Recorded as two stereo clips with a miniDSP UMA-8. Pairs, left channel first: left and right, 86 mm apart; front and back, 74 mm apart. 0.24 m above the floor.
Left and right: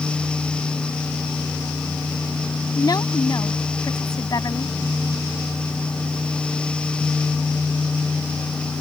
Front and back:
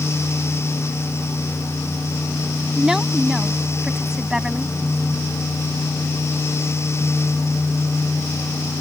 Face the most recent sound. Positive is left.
turn(degrees=100)